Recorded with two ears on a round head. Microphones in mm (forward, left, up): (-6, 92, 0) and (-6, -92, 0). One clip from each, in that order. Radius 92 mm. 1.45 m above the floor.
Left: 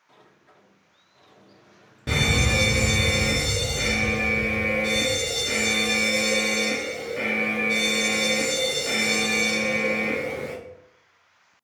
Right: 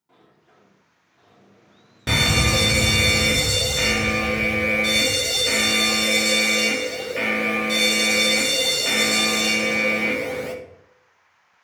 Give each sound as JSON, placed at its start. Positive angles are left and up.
{"t": 0.1, "sound": "a sliding door", "side_deg": 60, "distance_m": 1.8}
{"t": 2.1, "sound": "a fire alarm", "side_deg": -35, "distance_m": 1.0}